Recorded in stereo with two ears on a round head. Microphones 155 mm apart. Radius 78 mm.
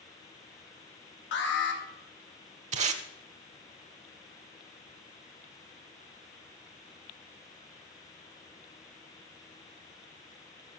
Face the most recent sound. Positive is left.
turn(degrees=-40)  # may be behind; listen again after turning